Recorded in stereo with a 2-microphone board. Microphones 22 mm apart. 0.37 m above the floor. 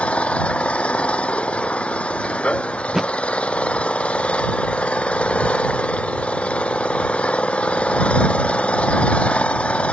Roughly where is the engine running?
Left.